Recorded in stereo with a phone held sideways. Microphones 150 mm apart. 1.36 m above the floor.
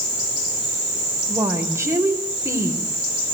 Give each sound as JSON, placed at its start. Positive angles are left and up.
{"t": 1.3, "sound": "a woman speaking", "side_deg": -20, "distance_m": 4.5}